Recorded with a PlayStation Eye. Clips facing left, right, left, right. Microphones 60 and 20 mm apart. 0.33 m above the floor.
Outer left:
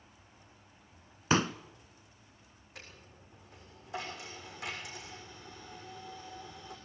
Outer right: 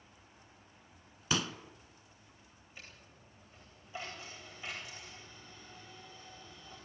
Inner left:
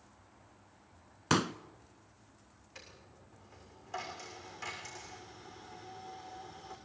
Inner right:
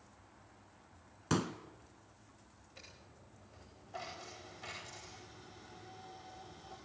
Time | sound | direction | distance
1.3 | a pop | 35° left (ahead or behind) | 0.7 m
2.8 | a dropped coin | 85° left | 6.5 m